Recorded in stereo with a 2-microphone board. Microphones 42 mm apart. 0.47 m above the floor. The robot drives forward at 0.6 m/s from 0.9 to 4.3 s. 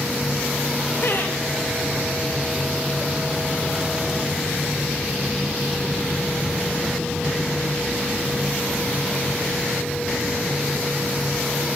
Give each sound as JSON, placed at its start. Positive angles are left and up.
{"t": 1.0, "sound": "laughter", "side_deg": 50, "distance_m": 2.5}